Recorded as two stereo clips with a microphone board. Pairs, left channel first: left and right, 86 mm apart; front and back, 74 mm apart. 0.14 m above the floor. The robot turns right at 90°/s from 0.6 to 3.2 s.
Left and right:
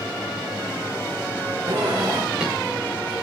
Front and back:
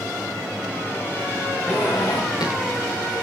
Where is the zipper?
75° right, 9 m; by 3.2 s 60° left, 9 m.